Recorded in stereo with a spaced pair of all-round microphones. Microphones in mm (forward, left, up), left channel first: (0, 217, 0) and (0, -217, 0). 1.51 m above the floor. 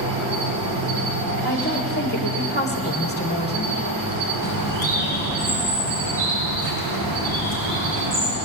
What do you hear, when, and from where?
0.0 s an insect: 50° right (ahead or behind), 1.6 m
1.4 s a woman speaking: 25° left (ahead or behind), 1.4 m
4.4 s a bird: 60° right (ahead or behind), 3.5 m